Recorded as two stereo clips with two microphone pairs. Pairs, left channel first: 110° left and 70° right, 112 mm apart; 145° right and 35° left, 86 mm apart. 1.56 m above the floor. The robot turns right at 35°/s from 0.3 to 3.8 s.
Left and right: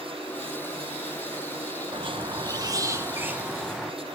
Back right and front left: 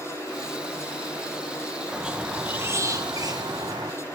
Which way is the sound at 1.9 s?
45° right.